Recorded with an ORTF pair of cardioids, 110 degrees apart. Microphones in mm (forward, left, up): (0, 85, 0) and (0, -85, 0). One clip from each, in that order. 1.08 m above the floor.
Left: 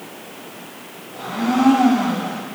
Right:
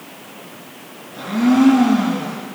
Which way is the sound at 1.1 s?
65° right.